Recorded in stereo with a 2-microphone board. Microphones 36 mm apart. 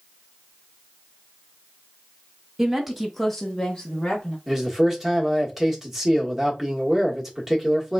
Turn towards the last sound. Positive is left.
turn(degrees=-10)  # may be behind; listen again after turning